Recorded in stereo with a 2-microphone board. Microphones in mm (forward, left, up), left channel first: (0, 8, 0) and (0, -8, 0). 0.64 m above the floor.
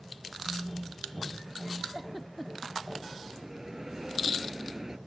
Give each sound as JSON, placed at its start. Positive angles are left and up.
{"t": 0.5, "sound": "a phone buzzing", "side_deg": 15}
{"t": 1.9, "sound": "a giggle", "side_deg": -5}
{"t": 3.2, "sound": "a bell", "side_deg": -25}